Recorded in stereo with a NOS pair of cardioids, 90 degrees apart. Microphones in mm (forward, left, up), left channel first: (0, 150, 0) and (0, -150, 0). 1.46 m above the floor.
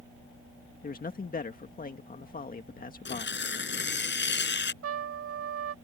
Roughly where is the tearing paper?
Ahead left.